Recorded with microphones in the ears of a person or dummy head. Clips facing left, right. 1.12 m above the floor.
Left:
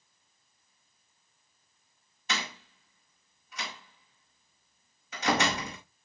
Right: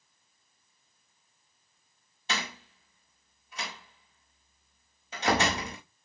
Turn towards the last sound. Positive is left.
turn(degrees=-25)  # may be behind; listen again after turning